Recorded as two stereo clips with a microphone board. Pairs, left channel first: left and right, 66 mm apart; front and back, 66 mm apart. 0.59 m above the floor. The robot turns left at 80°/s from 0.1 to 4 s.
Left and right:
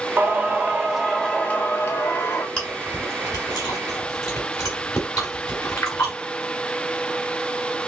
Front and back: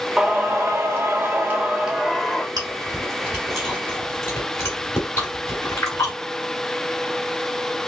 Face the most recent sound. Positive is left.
turn(degrees=50)